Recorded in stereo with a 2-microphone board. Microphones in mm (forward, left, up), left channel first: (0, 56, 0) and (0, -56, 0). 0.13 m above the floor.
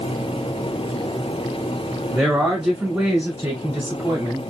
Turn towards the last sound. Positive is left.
turn(degrees=-20)  # may be behind; listen again after turning